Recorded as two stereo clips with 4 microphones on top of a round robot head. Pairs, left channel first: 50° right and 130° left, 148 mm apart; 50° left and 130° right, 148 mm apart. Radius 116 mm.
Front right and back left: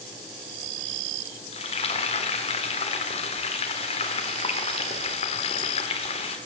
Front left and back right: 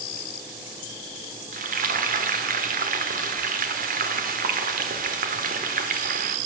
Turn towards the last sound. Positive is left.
turn(degrees=-100)